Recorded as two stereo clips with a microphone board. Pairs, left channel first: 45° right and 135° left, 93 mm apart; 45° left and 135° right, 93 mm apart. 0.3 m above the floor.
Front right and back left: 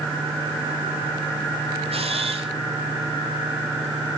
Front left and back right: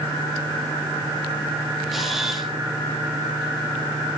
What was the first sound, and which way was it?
A camera shutter, 140° left.